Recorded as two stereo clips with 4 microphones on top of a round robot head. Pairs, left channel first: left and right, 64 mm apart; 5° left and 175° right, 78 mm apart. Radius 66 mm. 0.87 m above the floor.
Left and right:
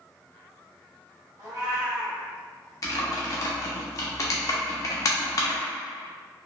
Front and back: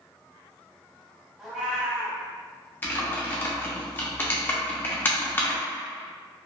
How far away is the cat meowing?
About 0.7 m.